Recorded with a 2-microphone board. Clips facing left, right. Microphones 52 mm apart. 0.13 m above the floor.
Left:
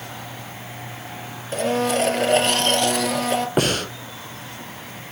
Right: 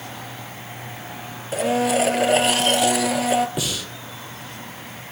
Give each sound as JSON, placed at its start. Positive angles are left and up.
{"t": 1.5, "sound": "a blender", "side_deg": -5, "distance_m": 1.0}
{"t": 3.6, "sound": "breathing", "side_deg": 50, "distance_m": 0.9}